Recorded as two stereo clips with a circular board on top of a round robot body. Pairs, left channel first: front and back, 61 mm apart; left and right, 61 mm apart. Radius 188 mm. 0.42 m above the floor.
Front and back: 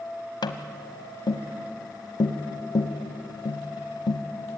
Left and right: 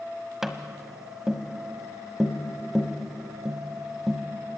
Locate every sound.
0.4 s tapping: 5° right, 1.3 m